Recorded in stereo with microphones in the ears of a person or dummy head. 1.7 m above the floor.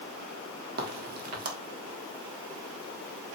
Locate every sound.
0.8 s a crack: 55° right (ahead or behind), 2.5 m